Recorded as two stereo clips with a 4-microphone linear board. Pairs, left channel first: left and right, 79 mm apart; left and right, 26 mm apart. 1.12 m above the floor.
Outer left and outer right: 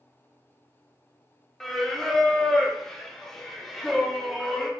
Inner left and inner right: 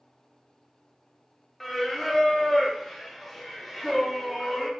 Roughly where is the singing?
Centre.